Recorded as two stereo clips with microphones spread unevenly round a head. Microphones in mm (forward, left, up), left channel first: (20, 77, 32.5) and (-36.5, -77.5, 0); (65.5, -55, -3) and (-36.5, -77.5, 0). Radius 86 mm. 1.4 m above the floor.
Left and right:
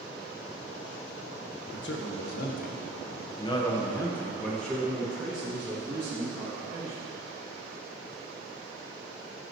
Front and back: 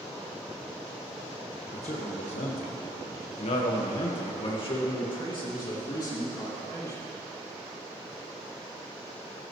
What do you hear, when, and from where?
1.7 s a man speaking: 55° left, 1.5 m; by 7.1 s 40° right, 3.5 m